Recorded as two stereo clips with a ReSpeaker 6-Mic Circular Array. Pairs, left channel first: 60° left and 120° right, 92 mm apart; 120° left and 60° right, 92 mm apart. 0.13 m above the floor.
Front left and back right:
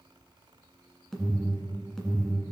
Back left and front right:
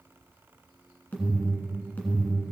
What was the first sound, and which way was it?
An alarm, 140° left.